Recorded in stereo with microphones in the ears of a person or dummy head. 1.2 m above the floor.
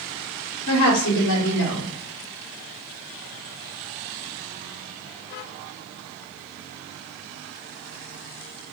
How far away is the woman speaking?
About 0.9 m.